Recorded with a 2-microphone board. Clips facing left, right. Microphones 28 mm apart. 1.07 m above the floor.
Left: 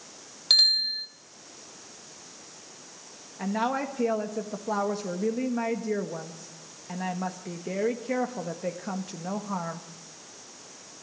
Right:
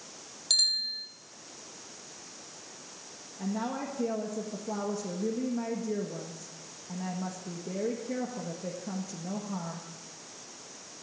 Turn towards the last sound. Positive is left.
turn(degrees=65)  # may be behind; listen again after turning